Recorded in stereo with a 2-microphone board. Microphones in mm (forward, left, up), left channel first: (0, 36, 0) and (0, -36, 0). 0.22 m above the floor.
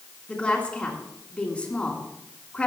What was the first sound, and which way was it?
A woman speaking, 15° left (ahead or behind).